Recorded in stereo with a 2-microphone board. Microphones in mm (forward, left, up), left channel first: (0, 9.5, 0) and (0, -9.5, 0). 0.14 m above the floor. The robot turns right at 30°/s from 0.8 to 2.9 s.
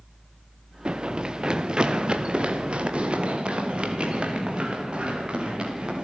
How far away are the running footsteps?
About 1.0 m.